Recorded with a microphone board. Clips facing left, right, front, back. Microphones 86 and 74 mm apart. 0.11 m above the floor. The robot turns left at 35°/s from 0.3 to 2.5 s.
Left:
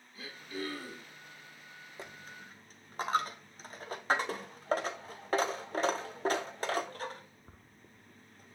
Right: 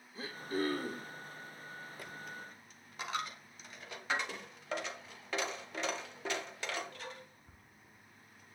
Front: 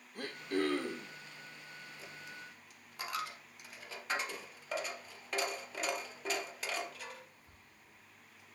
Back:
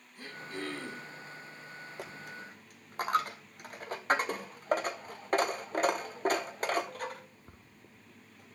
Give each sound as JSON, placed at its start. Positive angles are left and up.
{"t": 0.1, "sound": "throat clearing", "azimuth_deg": -30, "distance_m": 2.5}
{"t": 2.0, "sound": "a dropped coin", "azimuth_deg": 155, "distance_m": 1.3}